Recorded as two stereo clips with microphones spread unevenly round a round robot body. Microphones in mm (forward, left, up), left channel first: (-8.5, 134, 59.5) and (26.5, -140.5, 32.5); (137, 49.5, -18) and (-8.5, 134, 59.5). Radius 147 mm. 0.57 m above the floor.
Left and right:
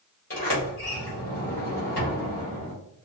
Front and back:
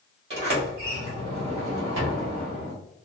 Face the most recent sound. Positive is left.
turn(degrees=155)